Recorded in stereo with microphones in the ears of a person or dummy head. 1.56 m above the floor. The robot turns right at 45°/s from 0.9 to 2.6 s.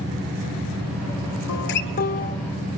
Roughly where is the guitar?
Behind left.